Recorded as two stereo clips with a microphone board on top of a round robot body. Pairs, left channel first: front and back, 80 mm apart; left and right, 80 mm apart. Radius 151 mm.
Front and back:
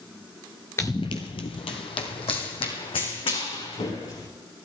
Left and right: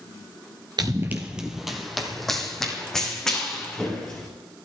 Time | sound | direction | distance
0.8 | running footsteps | 60° right | 0.5 m